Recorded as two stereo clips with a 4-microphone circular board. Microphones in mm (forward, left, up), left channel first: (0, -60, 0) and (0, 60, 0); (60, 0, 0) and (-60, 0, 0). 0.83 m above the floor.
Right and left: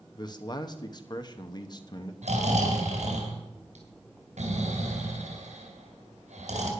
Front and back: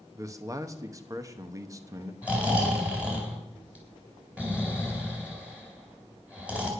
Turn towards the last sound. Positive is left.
turn(degrees=100)